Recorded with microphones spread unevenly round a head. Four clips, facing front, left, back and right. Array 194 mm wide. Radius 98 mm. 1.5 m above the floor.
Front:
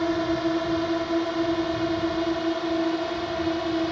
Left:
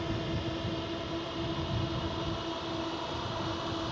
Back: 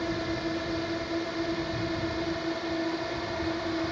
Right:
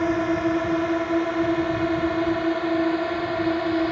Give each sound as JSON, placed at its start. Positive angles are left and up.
{"t": 0.0, "sound": "a drone", "azimuth_deg": -60}